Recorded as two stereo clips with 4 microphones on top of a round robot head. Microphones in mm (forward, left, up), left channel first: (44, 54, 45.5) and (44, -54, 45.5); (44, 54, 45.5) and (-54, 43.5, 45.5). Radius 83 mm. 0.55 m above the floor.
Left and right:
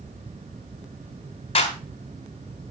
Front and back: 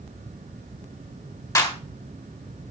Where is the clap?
60° left, 3.5 m.